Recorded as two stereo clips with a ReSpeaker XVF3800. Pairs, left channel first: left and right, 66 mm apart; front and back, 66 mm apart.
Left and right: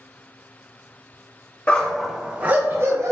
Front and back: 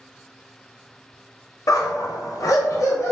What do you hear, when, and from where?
1.7 s a dog barking: 20° left, 0.5 m; by 3.1 s 50° right, 0.8 m